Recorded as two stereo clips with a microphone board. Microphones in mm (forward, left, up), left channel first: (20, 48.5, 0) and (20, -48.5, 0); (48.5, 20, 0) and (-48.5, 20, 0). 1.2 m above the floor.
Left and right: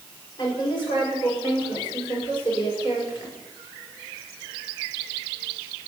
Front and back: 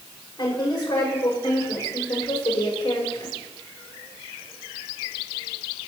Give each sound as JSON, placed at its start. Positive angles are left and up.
{"t": 0.4, "sound": "a woman speaking", "azimuth_deg": 50, "distance_m": 6.5}